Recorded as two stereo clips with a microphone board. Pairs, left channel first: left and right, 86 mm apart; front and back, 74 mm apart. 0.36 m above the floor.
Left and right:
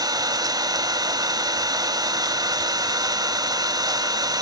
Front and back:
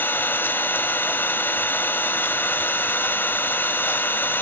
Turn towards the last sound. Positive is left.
turn(degrees=-60)